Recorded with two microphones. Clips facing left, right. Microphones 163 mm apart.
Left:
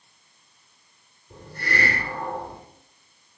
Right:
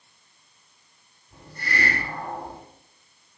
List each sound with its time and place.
1.3 s a hiss: 65° left (ahead or behind), 7 m